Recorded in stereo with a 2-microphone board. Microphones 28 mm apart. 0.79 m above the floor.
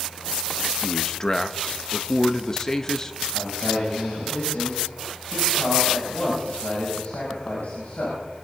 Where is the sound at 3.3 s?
75° left (ahead or behind), 6.5 m.